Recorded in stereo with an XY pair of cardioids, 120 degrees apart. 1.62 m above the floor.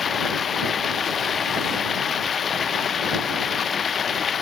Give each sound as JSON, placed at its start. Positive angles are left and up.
{"t": 0.0, "sound": "running water", "azimuth_deg": 35}